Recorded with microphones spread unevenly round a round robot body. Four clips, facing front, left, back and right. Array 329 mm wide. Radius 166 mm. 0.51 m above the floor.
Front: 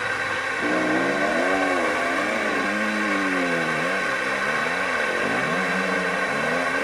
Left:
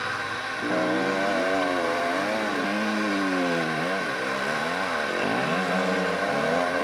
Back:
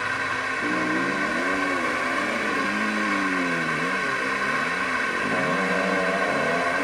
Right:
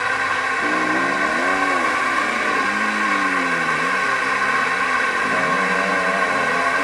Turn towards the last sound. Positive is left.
turn(degrees=-105)